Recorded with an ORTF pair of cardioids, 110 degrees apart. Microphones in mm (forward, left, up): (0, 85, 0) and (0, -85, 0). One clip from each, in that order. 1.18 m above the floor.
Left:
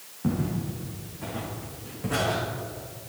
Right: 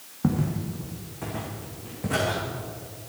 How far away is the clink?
No clink in this recording.